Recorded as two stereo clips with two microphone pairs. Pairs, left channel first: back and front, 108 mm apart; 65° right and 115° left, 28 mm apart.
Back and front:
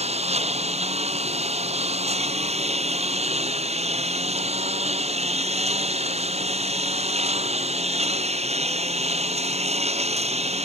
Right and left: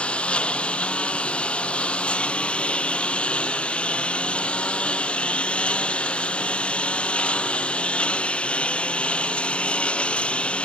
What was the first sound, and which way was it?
A lawn mower, 15° right.